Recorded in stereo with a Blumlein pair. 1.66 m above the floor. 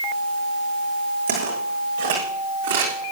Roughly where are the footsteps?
Ahead right.